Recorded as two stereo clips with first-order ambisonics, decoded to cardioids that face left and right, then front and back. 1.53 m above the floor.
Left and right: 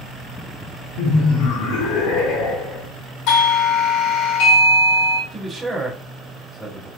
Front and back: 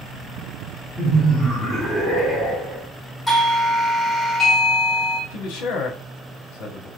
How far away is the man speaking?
About 1.0 m.